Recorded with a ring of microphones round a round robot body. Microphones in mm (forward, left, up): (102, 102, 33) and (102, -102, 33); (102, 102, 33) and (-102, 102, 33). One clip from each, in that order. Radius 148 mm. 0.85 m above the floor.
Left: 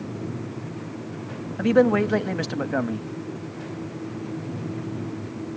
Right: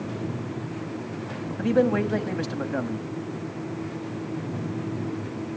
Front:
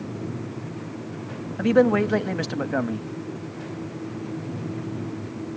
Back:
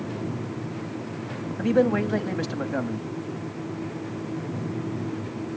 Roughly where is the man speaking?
Ahead left.